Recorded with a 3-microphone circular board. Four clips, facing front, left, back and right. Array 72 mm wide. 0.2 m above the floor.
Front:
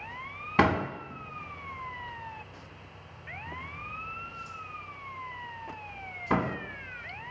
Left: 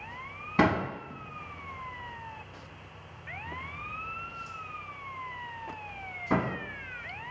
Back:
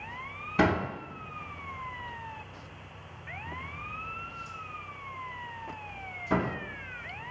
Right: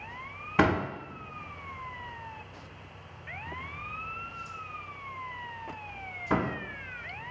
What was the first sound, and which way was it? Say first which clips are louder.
A door slam: even, front 1 dB; 10° right.